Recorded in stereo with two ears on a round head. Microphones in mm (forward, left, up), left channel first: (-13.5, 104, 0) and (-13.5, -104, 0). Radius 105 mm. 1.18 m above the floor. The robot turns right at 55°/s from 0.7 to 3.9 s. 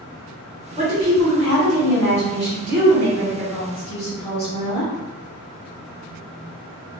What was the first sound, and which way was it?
A woman speaking, 145° right.